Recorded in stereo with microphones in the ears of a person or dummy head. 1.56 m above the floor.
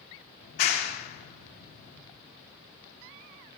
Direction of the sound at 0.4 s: 50° left (ahead or behind).